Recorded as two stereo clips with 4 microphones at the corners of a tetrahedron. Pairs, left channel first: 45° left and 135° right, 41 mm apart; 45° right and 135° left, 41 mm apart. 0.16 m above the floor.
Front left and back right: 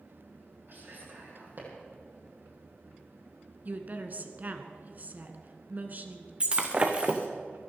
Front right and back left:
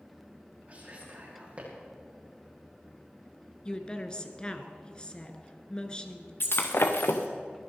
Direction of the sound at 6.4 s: 70° right.